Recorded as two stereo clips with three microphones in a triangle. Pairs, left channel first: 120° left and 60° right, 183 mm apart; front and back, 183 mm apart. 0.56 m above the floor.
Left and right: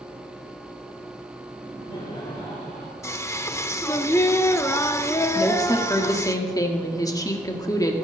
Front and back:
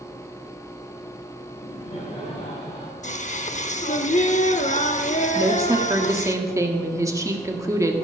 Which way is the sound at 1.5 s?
45° left.